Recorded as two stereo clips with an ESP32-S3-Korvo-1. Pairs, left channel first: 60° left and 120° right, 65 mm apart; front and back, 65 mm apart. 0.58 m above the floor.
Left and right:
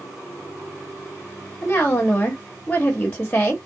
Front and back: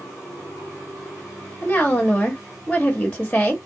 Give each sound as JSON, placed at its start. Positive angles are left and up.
{"t": 1.6, "sound": "a woman speaking", "azimuth_deg": 35, "distance_m": 1.1}